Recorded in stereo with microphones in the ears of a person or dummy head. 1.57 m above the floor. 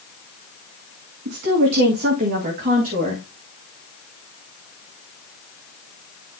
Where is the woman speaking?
60° right (ahead or behind), 1.9 m; by 3.2 s 40° right (ahead or behind), 2.5 m.